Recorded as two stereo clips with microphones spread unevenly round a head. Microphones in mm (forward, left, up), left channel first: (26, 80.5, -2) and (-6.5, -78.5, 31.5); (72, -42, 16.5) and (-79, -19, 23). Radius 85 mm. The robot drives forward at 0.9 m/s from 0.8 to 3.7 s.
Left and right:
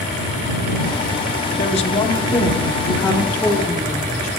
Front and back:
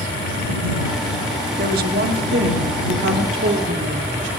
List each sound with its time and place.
1.6 s a woman speaking: 130° left, 1.3 m; by 4.3 s 160° left, 3 m